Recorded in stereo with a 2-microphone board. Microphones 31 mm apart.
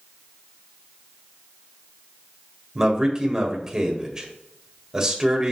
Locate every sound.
2.8 s a man speaking: 20° right (ahead or behind), 1.7 m